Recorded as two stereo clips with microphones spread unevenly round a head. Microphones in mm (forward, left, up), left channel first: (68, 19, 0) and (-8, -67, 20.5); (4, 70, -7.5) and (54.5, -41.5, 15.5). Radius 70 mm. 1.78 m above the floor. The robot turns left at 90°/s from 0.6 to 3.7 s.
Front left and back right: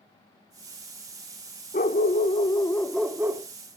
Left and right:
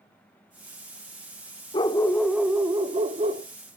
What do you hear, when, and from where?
1.7 s a dog barking: 65° left, 2.0 m; by 3.4 s 90° right, 2.0 m